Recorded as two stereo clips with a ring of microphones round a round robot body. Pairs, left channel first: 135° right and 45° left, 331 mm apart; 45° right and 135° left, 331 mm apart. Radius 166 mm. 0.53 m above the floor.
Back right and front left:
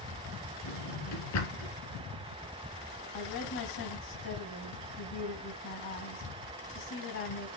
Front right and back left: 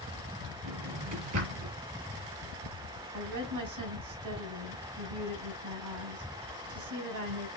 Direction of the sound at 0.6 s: Straight behind.